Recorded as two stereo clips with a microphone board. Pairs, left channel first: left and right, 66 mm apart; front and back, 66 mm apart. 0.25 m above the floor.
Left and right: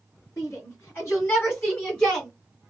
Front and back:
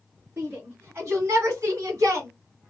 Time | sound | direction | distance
0.4 | a shout | 125° left | 2 m